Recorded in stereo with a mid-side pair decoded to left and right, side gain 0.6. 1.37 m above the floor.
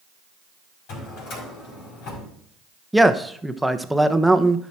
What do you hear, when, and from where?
0.9 s a drawer: 70° left, 5.5 m
2.9 s a man speaking: straight ahead, 1.0 m